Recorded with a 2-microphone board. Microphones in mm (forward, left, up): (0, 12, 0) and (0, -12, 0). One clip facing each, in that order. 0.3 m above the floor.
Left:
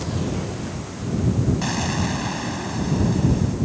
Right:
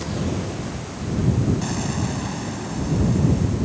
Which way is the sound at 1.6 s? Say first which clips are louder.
Left 2 dB; 35° left (ahead or behind).